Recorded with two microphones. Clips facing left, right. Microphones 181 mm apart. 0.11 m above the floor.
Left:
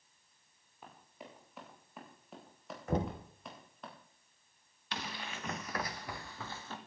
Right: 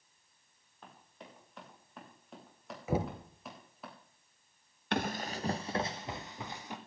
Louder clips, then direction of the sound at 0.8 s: Left 1 dB; 5° left (ahead or behind).